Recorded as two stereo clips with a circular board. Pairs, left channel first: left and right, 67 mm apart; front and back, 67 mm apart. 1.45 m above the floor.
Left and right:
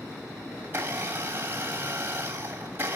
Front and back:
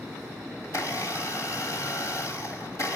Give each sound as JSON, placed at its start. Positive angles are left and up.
{"t": 0.6, "sound": "a blender", "azimuth_deg": -35, "distance_m": 3.0}